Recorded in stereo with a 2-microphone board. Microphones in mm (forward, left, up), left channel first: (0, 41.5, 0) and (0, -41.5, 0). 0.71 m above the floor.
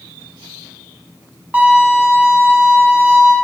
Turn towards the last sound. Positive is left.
turn(degrees=-20)  # may be behind; listen again after turning